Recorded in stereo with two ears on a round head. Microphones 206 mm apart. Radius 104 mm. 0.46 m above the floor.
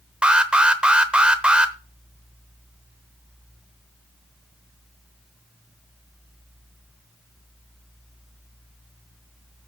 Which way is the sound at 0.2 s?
5° right (ahead or behind).